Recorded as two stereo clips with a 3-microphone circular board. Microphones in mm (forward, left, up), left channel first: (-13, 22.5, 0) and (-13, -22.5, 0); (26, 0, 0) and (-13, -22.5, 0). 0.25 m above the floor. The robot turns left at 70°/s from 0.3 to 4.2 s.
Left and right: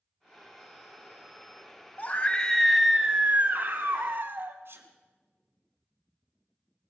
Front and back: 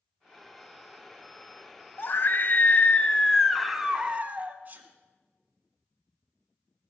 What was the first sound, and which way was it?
A scream, 50° left.